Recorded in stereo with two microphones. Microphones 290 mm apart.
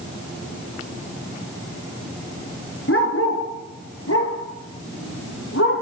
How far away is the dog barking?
About 2.5 m.